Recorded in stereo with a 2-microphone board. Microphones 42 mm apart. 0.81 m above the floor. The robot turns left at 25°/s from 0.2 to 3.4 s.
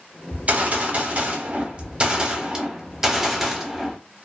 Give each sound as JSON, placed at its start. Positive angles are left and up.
{"t": 0.3, "sound": "a gunshot", "azimuth_deg": -90, "distance_m": 0.7}